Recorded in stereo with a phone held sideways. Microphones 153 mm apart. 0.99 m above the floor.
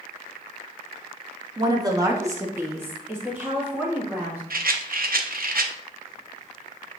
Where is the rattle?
75° right (ahead or behind), 0.6 m.